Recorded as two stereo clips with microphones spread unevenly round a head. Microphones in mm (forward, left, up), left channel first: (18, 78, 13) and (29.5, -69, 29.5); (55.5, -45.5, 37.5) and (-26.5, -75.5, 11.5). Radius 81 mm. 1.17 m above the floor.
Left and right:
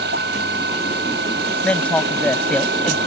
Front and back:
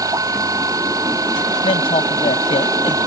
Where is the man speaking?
10° left.